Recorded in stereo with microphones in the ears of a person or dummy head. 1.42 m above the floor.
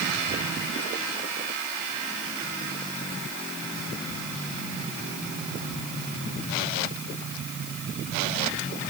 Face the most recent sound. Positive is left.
No sound to turn to.